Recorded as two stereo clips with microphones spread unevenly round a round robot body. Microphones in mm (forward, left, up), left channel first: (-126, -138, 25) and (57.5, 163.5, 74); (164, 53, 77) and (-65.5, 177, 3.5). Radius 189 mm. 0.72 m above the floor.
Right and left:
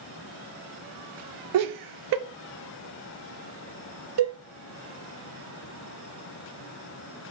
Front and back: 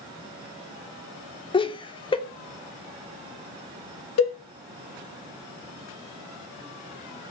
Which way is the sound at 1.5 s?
55° left.